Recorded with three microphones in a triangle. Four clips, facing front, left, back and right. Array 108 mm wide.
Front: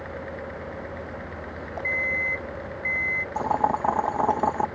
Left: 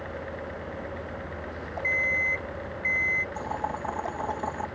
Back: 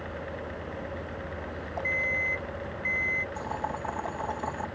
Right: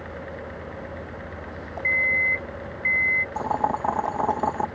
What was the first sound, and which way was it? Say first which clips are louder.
An alarm clock: right 4 dB, front 3 dB; 85° right.